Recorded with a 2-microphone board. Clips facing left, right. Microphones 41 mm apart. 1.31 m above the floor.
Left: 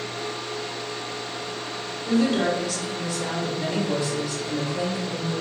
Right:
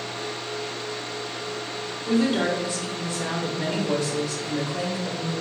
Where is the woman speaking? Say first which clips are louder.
Left 1 dB; centre (ahead or behind), 0.8 m; by 5.3 s 75° right (ahead or behind), 1.6 m.